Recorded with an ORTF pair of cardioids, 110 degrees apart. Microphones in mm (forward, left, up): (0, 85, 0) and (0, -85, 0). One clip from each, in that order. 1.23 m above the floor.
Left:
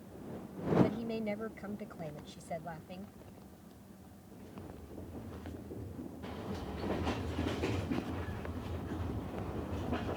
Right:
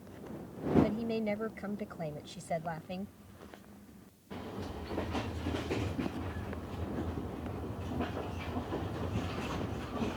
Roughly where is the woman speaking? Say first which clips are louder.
Right 3 dB; ahead.